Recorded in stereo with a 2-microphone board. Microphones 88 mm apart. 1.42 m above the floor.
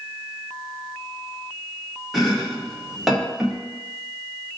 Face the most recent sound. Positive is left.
turn(degrees=0)  # may be behind; listen again after turning